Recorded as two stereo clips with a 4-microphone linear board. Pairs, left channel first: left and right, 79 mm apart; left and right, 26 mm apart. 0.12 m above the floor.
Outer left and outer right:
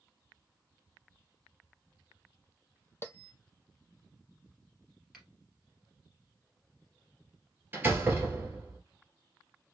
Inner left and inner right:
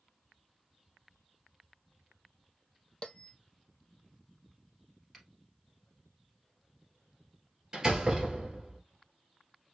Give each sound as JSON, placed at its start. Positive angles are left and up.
{"t": 3.0, "sound": "a bell", "side_deg": 30, "distance_m": 0.6}
{"t": 5.1, "sound": "a finger snap", "side_deg": 0, "distance_m": 2.5}
{"t": 7.7, "sound": "a door slam", "side_deg": -25, "distance_m": 1.9}